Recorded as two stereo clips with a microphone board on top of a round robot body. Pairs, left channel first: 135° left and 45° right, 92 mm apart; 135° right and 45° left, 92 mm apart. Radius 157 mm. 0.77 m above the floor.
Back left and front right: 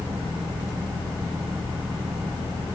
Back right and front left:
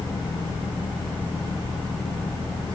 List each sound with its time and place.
Only background noise.